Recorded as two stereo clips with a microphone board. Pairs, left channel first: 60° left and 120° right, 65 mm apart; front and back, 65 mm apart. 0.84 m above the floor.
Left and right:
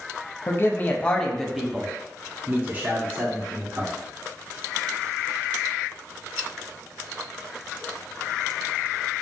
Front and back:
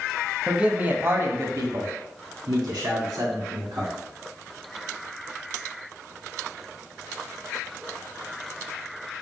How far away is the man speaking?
About 0.8 m.